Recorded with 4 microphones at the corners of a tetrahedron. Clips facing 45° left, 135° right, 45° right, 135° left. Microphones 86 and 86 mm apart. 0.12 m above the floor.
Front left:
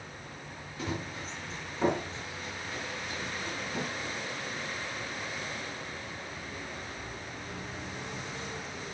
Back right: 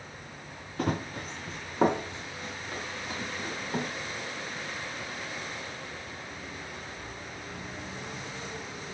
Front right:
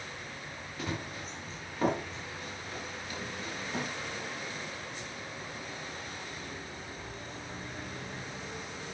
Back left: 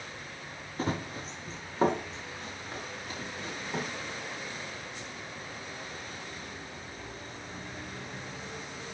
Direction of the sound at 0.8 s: 170° right.